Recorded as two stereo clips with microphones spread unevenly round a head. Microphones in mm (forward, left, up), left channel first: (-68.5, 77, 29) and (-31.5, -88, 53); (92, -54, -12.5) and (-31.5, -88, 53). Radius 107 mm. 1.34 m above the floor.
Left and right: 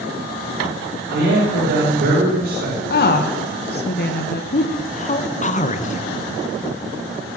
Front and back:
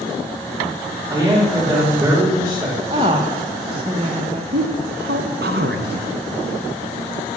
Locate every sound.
1.1 s a man speaking: 95° right, 6 m
2.9 s a woman speaking: 125° left, 1.4 m
4.5 s a man speaking: 145° left, 1.5 m